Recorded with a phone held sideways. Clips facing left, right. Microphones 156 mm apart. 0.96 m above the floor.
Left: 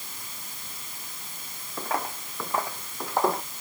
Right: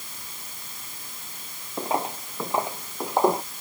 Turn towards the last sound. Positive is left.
turn(degrees=-20)  # may be behind; listen again after turning